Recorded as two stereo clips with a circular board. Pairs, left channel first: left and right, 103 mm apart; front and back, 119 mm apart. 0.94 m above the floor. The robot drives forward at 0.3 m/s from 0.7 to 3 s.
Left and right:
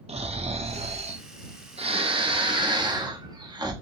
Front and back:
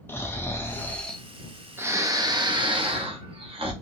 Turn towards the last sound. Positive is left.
turn(degrees=-140)